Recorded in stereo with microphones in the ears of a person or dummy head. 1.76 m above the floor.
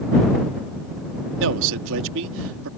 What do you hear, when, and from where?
1.4 s a man speaking: 75° right (ahead or behind)